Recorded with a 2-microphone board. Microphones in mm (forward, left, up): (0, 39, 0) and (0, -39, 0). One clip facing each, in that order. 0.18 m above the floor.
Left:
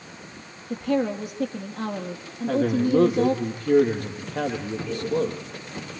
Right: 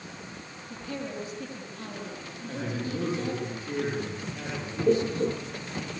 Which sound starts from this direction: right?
Laughter, at 4.9 s.